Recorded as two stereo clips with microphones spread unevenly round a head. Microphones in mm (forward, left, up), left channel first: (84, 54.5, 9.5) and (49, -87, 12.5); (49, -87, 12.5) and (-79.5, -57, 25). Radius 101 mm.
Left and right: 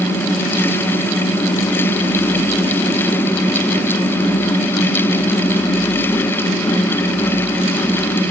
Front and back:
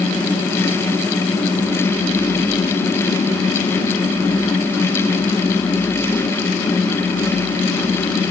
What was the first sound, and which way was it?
Only background noise.